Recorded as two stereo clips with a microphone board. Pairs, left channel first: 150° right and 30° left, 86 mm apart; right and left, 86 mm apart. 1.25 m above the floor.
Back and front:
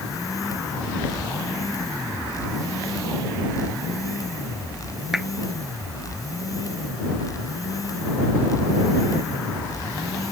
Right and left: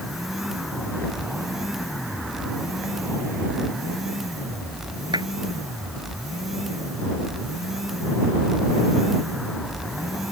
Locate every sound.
5.1 s a clap: 115° left